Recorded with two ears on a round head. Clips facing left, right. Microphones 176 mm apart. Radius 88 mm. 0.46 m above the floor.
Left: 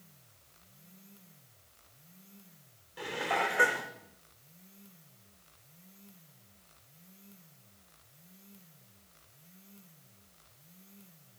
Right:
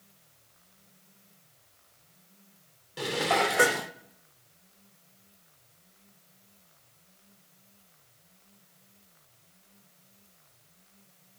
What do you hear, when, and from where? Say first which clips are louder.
3.0 s dishes clattering: right 6 dB; 50° right (ahead or behind), 0.6 m